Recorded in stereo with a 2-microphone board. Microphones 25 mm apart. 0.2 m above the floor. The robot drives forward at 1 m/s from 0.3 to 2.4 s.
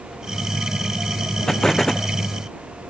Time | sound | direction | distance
1.5 | an explosion | 20° left (ahead or behind) | ?